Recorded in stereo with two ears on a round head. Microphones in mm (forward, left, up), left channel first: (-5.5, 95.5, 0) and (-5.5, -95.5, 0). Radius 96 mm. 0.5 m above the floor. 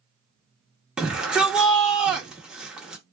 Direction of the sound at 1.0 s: 5° right (ahead or behind).